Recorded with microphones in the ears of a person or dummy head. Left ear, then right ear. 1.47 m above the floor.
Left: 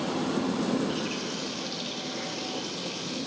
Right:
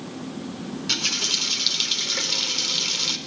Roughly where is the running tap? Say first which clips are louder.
Right 6 dB; right.